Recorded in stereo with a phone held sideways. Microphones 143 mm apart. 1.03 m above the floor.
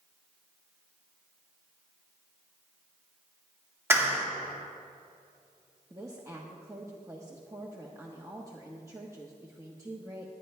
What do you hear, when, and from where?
3.9 s a clap: 15° right (ahead or behind), 1.7 m
5.9 s a woman speaking: 20° right (ahead or behind), 1.0 m